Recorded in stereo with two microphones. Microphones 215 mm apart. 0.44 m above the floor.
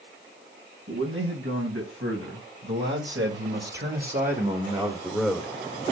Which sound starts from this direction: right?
A man speaking, at 0.9 s.